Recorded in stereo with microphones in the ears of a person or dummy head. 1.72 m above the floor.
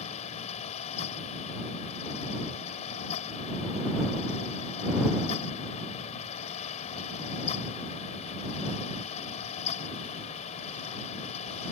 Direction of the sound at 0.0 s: 35° left (ahead or behind).